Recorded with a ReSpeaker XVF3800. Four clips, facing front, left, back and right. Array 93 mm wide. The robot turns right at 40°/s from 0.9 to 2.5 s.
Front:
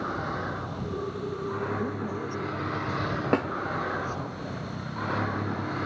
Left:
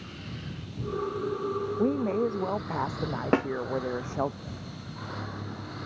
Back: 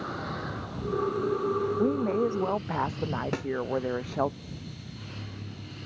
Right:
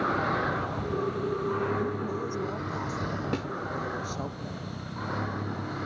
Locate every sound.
0.0 s a vehicle: 80° right; by 5.9 s 15° right
1.8 s a woman speaking: 120° left; by 4.3 s 150° left
3.3 s a snare drum: 50° left